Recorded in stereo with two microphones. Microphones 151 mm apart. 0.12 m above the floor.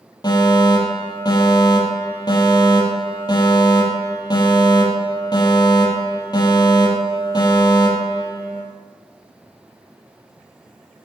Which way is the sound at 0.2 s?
25° left (ahead or behind).